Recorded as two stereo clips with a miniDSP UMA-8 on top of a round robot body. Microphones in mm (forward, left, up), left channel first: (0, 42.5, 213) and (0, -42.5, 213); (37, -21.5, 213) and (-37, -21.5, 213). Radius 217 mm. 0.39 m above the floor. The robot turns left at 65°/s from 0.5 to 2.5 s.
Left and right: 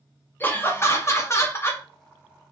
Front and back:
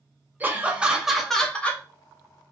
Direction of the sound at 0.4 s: 135° left.